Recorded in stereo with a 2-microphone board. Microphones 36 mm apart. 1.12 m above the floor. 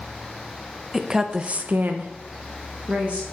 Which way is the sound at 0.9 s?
10° right (ahead or behind).